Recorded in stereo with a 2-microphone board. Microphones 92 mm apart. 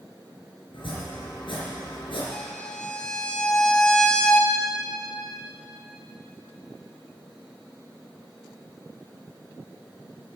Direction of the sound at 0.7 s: 80° left.